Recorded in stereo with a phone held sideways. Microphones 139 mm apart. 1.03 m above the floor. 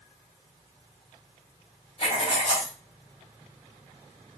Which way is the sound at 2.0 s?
45° left (ahead or behind).